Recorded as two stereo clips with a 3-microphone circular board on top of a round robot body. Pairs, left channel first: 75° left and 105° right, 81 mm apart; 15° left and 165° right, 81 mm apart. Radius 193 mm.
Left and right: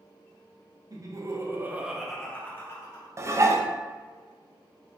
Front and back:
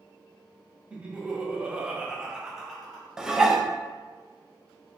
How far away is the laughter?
About 1.3 m.